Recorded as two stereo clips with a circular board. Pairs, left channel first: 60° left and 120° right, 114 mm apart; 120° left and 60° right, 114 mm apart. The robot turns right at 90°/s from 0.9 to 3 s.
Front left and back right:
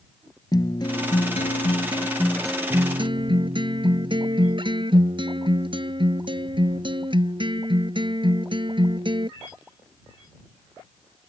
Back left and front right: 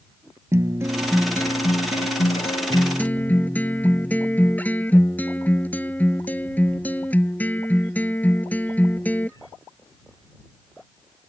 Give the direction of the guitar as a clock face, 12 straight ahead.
12 o'clock.